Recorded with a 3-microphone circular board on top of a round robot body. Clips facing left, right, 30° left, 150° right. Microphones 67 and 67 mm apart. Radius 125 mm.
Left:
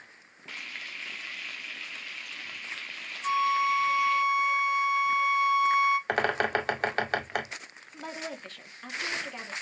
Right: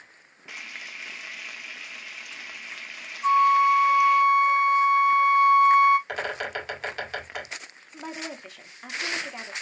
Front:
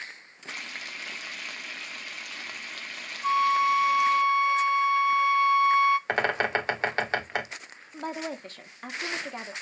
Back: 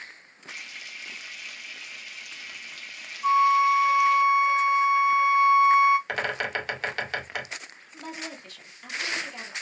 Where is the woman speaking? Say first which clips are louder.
Right 2 dB, front 5 dB; 15° right, 1.5 m.